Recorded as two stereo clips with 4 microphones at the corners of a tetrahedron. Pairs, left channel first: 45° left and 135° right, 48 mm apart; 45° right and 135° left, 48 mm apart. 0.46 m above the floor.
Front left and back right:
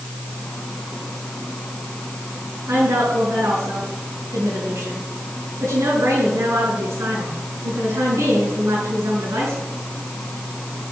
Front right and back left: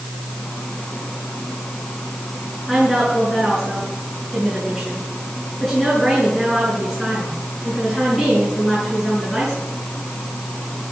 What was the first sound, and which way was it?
A woman speaking, 130° right.